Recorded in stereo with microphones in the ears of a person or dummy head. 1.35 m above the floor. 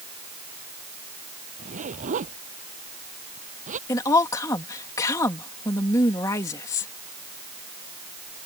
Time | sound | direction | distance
1.6 | a zipper | 45° right (ahead or behind) | ?
3.9 | a woman speaking | 20° left (ahead or behind) | ?